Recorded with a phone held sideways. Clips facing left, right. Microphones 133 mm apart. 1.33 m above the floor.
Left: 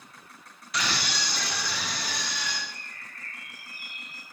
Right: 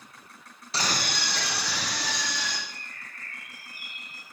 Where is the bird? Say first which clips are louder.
Even; 80° right, 2.5 m.